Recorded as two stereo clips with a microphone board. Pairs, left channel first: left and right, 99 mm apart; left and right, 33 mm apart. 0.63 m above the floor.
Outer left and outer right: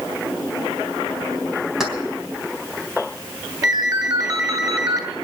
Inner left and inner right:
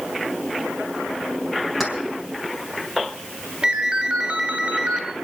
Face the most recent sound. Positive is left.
turn(degrees=-40)  # may be behind; listen again after turning